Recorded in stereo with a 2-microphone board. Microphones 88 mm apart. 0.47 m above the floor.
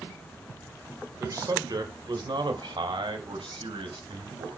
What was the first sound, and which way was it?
A man speaking, 40° right (ahead or behind).